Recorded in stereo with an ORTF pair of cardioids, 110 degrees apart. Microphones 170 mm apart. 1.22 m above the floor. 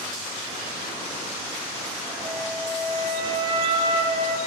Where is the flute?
30° right, 0.9 m.